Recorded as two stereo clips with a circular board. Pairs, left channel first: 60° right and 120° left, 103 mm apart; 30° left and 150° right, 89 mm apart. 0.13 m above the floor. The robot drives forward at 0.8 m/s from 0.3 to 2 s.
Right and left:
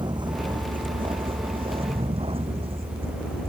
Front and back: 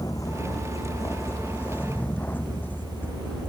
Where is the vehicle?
80° left; by 3.5 s 100° left.